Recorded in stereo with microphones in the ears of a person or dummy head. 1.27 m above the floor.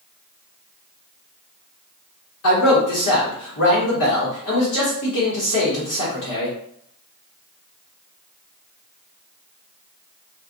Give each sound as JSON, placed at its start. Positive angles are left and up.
{"t": 2.4, "sound": "a man speaking", "side_deg": 75, "distance_m": 0.9}